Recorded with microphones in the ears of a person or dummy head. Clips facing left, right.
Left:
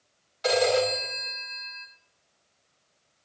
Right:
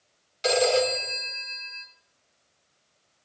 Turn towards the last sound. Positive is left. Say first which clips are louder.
# right 1 dB
turn(degrees=-35)  # may be behind; listen again after turning